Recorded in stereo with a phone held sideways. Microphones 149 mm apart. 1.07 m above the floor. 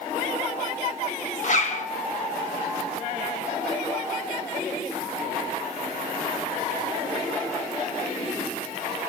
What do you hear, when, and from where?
1.4 s a zipper: 55° left (ahead or behind), 2.5 m